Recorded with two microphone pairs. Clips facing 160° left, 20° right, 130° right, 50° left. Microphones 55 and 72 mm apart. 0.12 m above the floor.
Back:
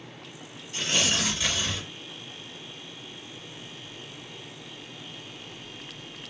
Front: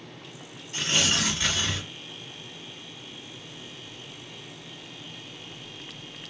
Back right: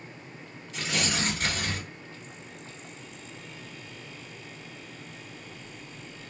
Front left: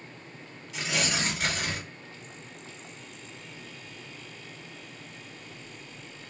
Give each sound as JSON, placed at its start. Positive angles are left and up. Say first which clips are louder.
{"t": 0.7, "sound": "tearing paper", "louder": "front 1 dB, even", "azimuth_deg": -25, "distance_m": 2.0}